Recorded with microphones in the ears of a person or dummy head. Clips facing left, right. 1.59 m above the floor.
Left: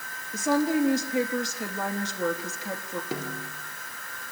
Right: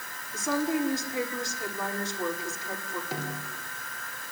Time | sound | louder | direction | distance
0.3 | a woman speaking | left 4 dB | 70° left (ahead or behind) | 3.5 m
3.1 | a snare drum | left 2 dB | 80° left | 4 m